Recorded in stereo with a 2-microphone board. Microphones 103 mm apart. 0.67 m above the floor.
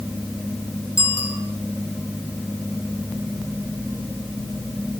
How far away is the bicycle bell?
About 6.5 m.